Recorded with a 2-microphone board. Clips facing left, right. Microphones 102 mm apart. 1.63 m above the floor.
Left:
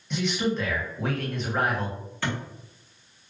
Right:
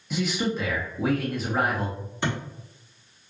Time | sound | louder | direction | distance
0.1 | a man speaking | even | 5° right (ahead or behind) | 1.2 m
2.2 | a thud | right 2 dB | 20° right (ahead or behind) | 1.2 m